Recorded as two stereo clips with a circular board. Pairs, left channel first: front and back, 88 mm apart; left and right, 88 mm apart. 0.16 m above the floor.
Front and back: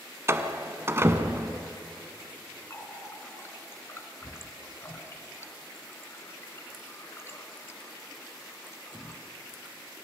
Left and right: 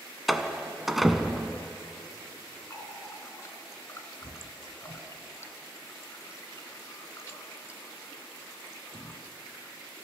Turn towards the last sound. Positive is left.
turn(degrees=50)